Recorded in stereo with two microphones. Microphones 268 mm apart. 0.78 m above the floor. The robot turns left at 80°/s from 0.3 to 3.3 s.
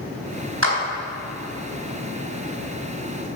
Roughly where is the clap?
Right.